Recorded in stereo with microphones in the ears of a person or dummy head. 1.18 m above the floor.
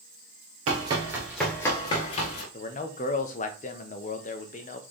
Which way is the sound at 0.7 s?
35° right (ahead or behind).